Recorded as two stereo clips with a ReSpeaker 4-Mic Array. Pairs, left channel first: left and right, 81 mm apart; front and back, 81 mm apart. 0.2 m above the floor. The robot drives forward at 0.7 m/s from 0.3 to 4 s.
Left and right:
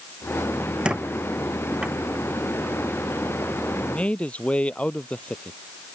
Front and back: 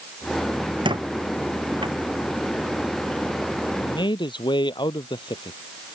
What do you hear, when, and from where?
0.8 s a squeak: 170° right
3.8 s a man speaking: 15° left